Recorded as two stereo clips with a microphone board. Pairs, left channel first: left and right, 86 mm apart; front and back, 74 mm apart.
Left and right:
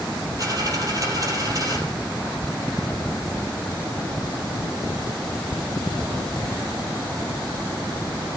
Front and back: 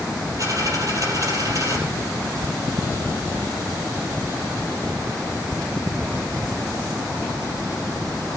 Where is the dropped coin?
140° right, 4 m.